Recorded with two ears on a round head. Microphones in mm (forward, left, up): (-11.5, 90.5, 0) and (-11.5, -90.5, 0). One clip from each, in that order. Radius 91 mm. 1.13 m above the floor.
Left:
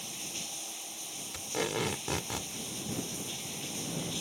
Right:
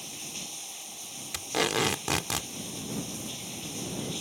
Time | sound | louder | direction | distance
0.0 | running water | even | 10° left (ahead or behind) | ?
1.3 | tape being pulled | right 6 dB | 35° right (ahead or behind) | ?